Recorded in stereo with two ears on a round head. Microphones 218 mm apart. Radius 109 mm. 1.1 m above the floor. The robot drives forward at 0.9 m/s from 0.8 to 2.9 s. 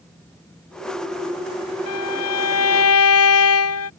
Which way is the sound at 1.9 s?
75° left (ahead or behind).